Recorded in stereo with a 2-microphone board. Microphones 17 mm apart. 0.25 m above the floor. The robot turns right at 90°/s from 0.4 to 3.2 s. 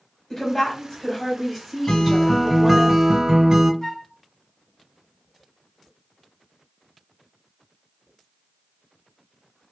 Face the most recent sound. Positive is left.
turn(degrees=30)  # may be behind; listen again after turning